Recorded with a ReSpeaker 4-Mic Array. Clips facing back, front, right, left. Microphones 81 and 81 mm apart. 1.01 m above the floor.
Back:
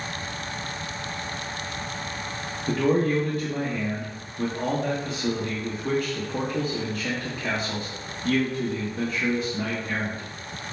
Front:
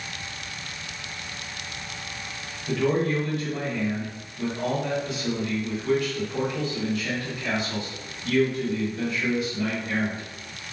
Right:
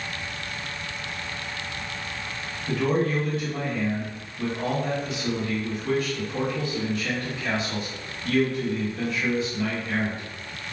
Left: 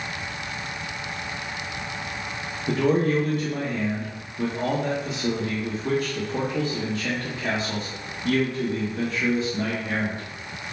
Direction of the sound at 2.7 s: 130° left.